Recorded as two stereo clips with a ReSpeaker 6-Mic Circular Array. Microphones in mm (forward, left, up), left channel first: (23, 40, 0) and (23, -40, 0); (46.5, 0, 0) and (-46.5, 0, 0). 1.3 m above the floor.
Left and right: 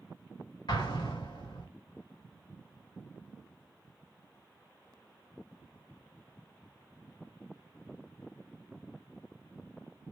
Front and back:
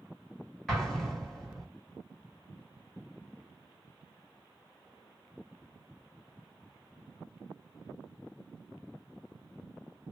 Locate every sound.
0.7 s an explosion: 85° left, 1.3 m